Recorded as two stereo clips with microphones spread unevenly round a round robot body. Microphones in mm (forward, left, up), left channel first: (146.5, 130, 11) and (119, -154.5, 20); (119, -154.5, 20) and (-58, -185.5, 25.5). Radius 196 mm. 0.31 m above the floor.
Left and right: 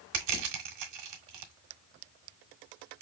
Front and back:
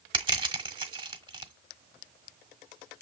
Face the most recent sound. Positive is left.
turn(degrees=-110)